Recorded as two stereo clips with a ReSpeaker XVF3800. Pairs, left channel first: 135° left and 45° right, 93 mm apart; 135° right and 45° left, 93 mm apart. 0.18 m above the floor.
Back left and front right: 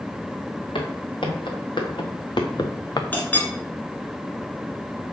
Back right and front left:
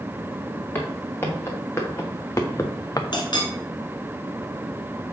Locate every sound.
0.8 s footsteps: 160° left, 3 m; by 3.0 s 175° left, 0.9 m
3.1 s a clink: 155° right, 1.6 m